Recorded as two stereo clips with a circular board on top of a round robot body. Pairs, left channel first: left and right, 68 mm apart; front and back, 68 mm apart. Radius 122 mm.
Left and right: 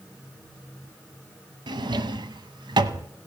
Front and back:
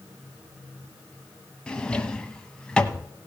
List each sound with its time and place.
1.7 s a drawer: 80° right, 0.7 m